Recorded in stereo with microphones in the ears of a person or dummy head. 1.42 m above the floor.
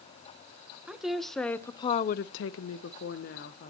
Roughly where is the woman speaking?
Centre.